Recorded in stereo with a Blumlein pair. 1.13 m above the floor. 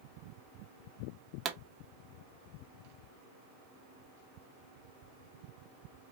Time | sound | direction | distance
1.4 | a pop | 25° right | 0.8 m